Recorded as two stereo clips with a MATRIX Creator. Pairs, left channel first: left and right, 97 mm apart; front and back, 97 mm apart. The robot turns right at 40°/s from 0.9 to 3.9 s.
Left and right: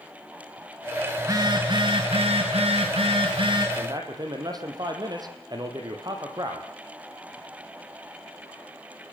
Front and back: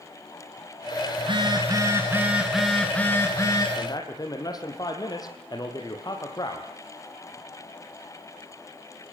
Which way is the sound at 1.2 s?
150° right.